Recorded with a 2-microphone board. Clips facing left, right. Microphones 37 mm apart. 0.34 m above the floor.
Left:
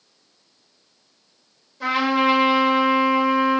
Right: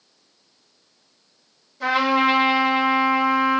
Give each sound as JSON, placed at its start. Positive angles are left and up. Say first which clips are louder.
{"t": 1.8, "sound": "a trumpet", "louder": "right 1 dB", "side_deg": 10, "distance_m": 4.5}